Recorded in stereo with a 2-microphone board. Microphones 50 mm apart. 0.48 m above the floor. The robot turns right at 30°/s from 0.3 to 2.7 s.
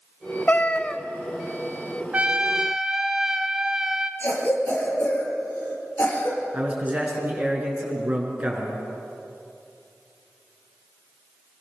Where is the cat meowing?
35° left (ahead or behind), 1.1 m; by 1.0 s 20° left (ahead or behind), 1.1 m.